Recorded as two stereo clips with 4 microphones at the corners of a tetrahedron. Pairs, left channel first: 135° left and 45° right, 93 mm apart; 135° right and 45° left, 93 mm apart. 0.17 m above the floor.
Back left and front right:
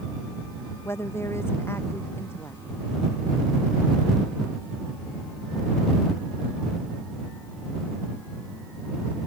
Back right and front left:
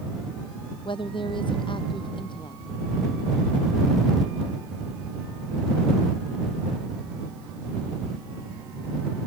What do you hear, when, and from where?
0.8 s a woman speaking: 160° right